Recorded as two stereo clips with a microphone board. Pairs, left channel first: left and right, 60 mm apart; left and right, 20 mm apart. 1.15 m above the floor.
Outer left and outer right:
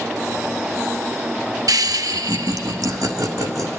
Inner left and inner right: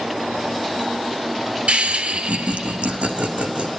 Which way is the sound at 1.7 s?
75° right (ahead or behind).